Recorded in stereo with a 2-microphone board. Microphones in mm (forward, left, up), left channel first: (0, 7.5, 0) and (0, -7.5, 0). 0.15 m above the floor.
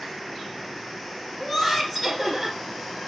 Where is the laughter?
10° right (ahead or behind), 2.5 m.